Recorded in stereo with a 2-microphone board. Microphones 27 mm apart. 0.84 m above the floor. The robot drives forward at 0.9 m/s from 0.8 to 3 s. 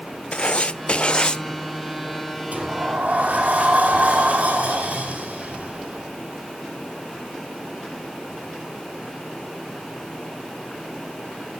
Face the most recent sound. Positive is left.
turn(degrees=-55)  # may be behind; listen again after turning